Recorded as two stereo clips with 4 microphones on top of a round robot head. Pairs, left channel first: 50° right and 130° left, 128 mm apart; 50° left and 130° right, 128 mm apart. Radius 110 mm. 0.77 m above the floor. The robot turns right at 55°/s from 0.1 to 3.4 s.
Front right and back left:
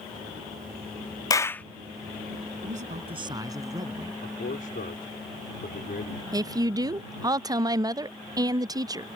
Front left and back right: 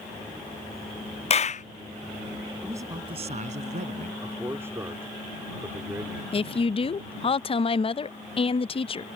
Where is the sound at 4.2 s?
60° right.